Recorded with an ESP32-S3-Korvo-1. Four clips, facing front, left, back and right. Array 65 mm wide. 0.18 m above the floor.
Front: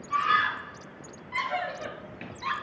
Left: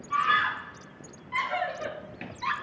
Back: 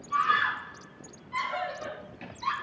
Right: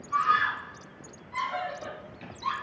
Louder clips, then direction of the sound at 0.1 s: Even, front 1 dB; 50° left.